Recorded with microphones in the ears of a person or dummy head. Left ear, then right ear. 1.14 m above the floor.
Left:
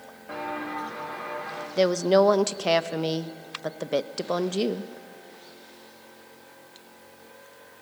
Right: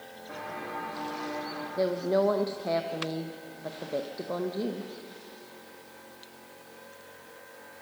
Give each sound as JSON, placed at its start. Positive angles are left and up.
{"t": 0.3, "sound": "footsteps", "side_deg": 80, "distance_m": 6.0}
{"t": 1.8, "sound": "a woman speaking", "side_deg": 65, "distance_m": 0.6}